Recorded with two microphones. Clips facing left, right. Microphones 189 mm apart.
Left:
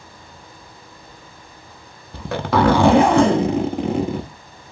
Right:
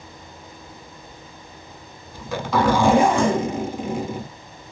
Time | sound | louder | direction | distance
2.1 | a zipper | left 3 dB | 65° left (ahead or behind) | 0.5 m